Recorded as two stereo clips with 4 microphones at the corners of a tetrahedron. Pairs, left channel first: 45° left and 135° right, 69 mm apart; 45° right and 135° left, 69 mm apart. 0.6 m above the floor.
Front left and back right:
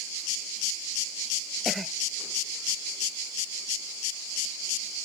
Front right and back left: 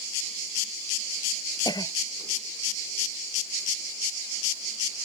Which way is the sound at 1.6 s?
45° right.